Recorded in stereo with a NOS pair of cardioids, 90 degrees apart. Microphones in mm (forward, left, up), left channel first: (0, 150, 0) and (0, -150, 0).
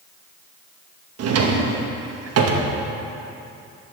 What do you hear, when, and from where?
1.2 s a drawer: 55° right, 1.0 m